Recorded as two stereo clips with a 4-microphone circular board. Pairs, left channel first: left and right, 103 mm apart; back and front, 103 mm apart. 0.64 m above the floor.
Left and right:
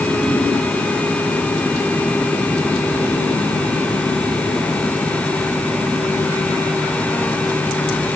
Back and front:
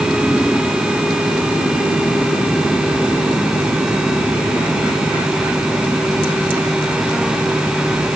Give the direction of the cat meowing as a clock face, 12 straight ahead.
No cat meowing in this recording.